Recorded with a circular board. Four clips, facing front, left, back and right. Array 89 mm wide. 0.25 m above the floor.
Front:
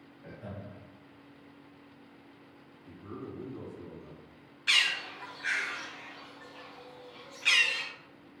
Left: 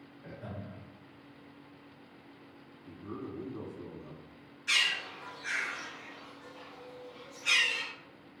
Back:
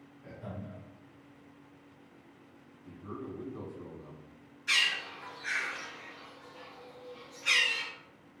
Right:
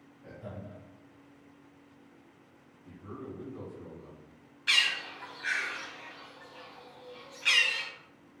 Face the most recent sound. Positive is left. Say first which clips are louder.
# right 2 dB, front 1 dB
turn(degrees=-40)